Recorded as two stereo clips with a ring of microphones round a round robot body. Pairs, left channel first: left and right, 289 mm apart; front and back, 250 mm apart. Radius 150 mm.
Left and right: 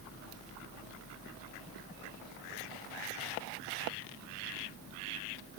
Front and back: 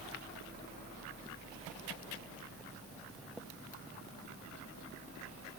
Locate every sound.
Only background noise.